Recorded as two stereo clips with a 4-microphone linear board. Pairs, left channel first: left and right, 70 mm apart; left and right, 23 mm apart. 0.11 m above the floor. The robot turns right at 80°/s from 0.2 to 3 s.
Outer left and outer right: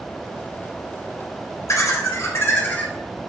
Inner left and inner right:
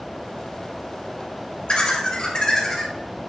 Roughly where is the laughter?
Ahead left.